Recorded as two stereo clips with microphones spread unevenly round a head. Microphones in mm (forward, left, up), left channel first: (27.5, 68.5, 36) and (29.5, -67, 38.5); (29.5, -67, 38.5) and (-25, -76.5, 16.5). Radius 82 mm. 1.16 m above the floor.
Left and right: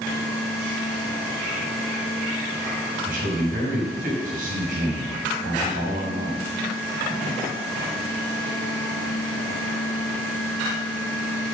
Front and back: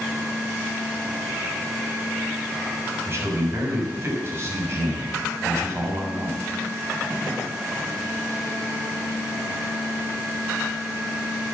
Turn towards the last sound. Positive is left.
turn(degrees=-125)